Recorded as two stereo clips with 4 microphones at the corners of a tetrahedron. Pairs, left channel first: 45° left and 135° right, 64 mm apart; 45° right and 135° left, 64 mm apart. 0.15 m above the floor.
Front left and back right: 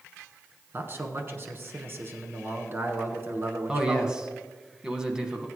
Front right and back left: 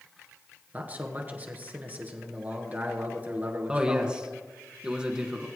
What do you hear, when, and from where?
0.7 s a man speaking: 175° right, 1.6 m
3.7 s a man speaking: 175° left, 1.2 m